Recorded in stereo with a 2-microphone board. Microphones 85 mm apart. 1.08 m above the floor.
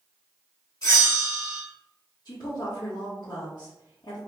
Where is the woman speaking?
60° left (ahead or behind), 1.1 m.